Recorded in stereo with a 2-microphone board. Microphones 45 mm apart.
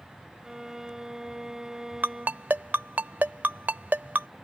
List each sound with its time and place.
0.4 s a violin: 10° right (ahead or behind)
2.0 s a ringtone: 40° right (ahead or behind)